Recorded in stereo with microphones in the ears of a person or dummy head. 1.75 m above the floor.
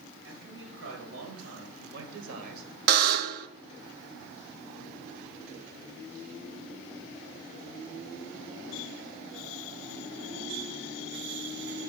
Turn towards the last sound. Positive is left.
turn(degrees=-45)  # may be behind; listen again after turning